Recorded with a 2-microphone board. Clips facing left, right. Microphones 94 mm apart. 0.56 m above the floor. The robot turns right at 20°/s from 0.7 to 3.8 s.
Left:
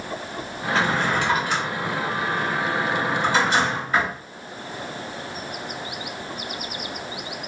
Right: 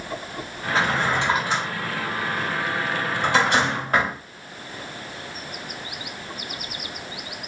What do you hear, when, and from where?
0.8 s a drawer: 20° right (ahead or behind), 1.6 m; by 4.1 s 75° right (ahead or behind), 1.6 m